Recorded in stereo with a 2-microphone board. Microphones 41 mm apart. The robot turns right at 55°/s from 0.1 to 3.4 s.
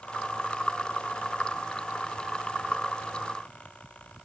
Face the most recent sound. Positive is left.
No sound to turn to.